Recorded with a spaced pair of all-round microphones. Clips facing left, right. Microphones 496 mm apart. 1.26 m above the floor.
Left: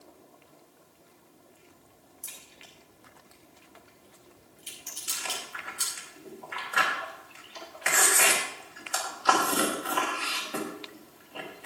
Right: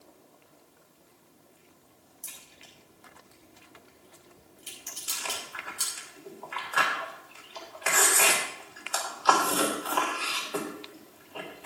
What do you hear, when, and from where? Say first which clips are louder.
2.2 s a crack: left 1 dB; centre (ahead or behind), 5 m
5.1 s chewing: even; 45° left (ahead or behind), 3 m